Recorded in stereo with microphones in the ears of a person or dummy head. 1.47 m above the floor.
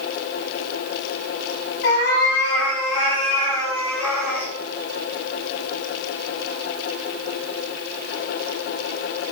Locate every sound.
1.8 s a cat meowing: 40° left (ahead or behind), 1.9 m; by 4.5 s 10° right (ahead or behind), 2 m